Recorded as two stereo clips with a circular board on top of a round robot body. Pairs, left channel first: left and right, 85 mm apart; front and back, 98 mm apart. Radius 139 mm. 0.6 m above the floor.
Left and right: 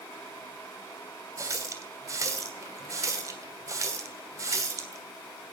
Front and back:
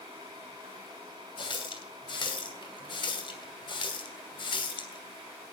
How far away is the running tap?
About 2.5 m.